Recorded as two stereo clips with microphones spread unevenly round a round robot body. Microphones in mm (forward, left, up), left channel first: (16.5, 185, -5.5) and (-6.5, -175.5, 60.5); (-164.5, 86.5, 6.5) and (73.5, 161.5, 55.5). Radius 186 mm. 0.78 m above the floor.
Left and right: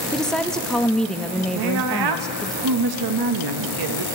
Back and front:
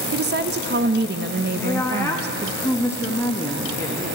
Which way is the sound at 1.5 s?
95° right.